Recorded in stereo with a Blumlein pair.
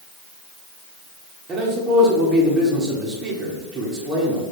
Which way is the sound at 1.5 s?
25° right.